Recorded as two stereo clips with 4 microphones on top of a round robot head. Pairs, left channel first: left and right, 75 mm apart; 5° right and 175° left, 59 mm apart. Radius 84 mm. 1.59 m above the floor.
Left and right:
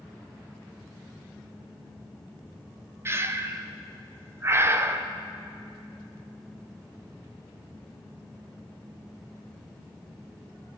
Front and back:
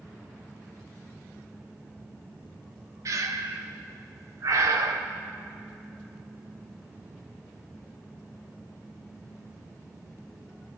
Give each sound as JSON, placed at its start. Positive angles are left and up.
{"t": 3.0, "sound": "breathing", "azimuth_deg": -150, "distance_m": 1.4}